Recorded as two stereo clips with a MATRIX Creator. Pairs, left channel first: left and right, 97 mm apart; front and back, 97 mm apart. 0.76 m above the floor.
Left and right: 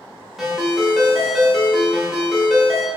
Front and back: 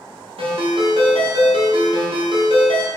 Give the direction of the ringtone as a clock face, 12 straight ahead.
6 o'clock.